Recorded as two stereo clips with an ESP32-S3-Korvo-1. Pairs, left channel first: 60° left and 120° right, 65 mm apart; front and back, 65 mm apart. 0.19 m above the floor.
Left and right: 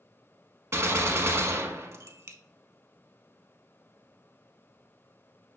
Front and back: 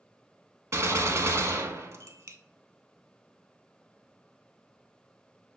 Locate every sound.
0.7 s a gunshot: 150° right, 0.5 m